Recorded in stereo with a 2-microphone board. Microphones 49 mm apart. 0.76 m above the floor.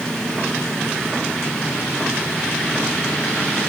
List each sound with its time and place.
Only background noise.